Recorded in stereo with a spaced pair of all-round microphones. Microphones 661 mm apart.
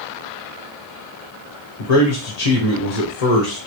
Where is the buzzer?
No buzzer in this recording.